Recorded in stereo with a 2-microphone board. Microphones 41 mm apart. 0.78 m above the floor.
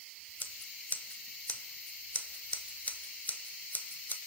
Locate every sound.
0.4 s scissors: 45° left (ahead or behind), 1.2 m